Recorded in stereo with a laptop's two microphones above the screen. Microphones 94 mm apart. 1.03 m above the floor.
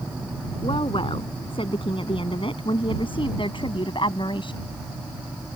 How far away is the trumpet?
I don't hear a trumpet.